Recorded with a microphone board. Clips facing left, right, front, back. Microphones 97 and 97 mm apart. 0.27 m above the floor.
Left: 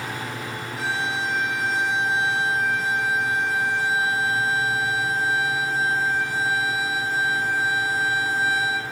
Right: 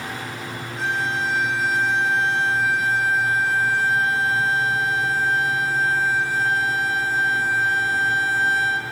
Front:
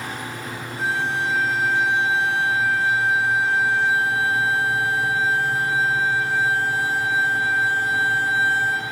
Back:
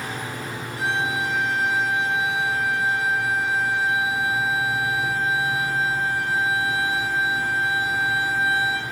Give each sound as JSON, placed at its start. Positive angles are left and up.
{"t": 0.8, "sound": "a violin", "azimuth_deg": 175, "distance_m": 8.0}